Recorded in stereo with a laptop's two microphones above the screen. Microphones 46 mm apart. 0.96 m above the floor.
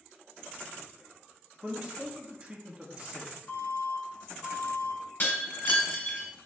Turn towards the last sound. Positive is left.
turn(degrees=45)  # may be behind; listen again after turning